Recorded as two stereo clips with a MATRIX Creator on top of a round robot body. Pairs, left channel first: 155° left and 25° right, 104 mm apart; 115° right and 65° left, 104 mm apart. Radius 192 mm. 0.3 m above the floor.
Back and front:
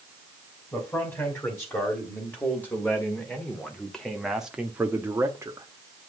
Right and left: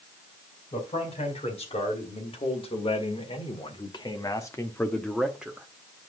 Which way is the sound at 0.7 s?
135° right.